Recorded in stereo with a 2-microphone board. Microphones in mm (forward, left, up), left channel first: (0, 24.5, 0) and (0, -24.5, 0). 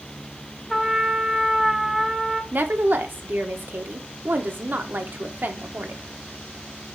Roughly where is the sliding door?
No sliding door in this recording.